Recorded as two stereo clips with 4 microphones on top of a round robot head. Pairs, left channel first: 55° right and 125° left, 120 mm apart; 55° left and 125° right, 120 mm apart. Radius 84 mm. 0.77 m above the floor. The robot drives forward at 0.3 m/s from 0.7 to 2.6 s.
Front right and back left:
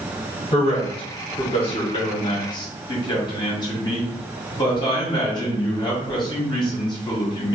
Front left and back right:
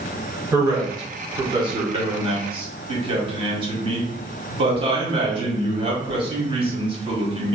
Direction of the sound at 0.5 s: 75° right.